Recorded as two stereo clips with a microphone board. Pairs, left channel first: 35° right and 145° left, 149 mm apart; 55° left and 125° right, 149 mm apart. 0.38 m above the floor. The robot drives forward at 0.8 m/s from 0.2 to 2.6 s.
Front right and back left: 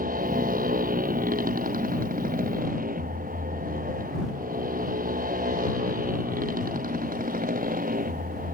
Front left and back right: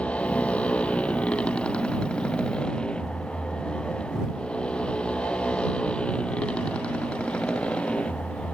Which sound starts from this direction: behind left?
A motorcycle, at 0.0 s.